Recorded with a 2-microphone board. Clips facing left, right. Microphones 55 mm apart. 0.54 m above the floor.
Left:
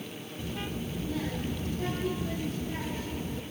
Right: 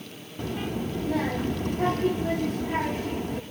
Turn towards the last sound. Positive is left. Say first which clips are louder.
# right 7 dB
turn(degrees=-60)  # may be behind; listen again after turning